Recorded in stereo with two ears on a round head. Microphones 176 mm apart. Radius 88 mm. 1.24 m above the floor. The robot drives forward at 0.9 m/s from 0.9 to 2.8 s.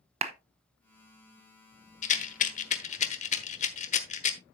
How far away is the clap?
About 0.8 m.